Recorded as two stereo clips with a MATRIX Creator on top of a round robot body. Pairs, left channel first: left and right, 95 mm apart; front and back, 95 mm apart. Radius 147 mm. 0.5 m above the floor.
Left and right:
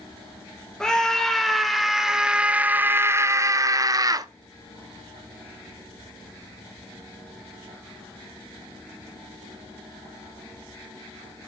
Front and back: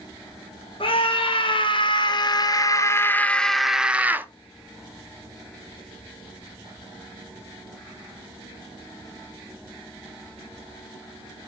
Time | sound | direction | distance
0.8 | a scream | 5° left | 2.0 m